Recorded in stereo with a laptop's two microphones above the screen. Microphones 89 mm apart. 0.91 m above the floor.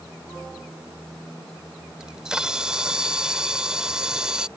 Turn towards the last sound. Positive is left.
turn(degrees=-10)  # may be behind; listen again after turning